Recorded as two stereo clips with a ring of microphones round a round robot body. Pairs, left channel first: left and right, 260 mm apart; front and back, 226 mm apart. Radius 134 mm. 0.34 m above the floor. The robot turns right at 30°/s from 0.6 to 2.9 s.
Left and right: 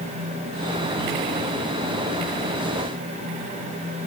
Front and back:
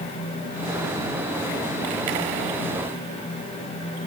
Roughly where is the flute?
I don't hear a flute.